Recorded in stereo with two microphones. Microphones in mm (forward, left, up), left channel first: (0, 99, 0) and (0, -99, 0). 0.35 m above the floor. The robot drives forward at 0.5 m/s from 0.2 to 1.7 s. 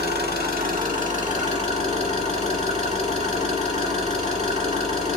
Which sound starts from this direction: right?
An engine running, at 0.0 s.